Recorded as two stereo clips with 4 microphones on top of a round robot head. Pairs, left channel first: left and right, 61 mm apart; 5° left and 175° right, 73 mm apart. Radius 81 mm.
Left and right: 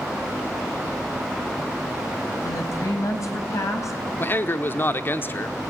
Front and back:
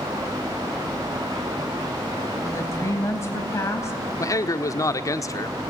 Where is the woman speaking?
55° left, 4 m.